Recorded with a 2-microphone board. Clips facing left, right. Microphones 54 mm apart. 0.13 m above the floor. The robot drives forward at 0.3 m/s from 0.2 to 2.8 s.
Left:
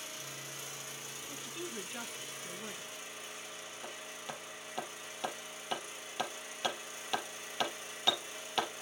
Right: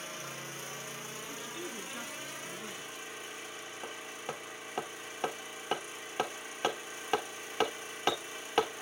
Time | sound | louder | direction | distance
0.0 | an engine running | right 4 dB | 40° right (ahead or behind) | 2.5 m
1.3 | a woman speaking | even | 5° left (ahead or behind) | 1.5 m
3.8 | hammering | right 4 dB | 30° right (ahead or behind) | 2 m